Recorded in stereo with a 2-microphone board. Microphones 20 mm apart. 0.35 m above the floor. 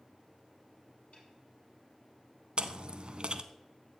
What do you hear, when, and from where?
1.1 s a snare drum: 65° left (ahead or behind), 5.5 m
2.6 s chewing: 50° right (ahead or behind), 0.7 m